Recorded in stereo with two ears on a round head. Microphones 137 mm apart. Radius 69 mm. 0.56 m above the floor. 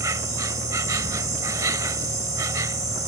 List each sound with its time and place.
0.0 s an insect: 20° right (ahead or behind)